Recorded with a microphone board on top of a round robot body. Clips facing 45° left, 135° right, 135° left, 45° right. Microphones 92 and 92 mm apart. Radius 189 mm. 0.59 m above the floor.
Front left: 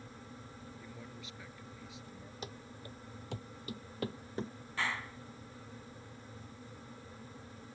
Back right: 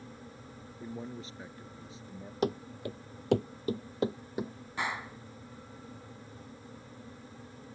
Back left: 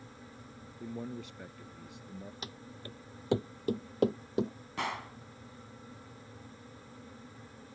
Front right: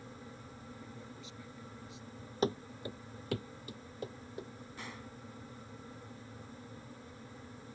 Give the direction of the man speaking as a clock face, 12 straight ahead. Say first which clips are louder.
Back right 8 dB, back left 9 dB; 6 o'clock.